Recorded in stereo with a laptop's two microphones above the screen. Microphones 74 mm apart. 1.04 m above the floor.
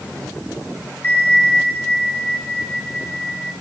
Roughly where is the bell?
Left.